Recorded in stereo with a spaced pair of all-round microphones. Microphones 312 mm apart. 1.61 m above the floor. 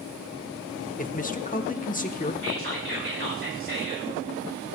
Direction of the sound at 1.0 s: 25° left (ahead or behind).